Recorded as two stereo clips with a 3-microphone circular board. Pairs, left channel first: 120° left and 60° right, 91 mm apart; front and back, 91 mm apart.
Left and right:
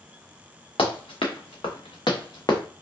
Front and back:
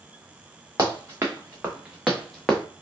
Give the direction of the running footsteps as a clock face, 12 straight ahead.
8 o'clock.